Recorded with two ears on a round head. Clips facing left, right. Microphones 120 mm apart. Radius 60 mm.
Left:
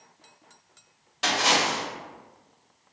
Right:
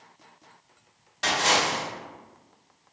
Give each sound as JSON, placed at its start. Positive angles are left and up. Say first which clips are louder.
{"t": 1.2, "sound": "a splash", "louder": "even", "side_deg": 10, "distance_m": 1.6}